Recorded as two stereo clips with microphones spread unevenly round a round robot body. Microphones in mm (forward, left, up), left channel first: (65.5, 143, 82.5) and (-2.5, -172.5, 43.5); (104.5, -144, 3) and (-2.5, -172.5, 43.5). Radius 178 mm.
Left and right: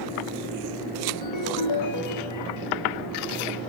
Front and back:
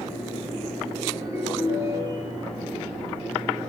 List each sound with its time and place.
1.2 s a ringtone: 115° left, 2.5 m